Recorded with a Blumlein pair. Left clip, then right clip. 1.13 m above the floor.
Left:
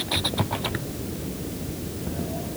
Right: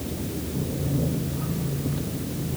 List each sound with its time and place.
Only background noise.